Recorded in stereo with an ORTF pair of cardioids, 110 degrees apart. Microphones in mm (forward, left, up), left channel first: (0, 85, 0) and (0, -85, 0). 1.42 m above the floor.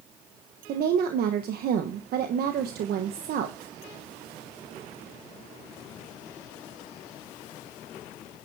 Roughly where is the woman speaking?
Ahead right.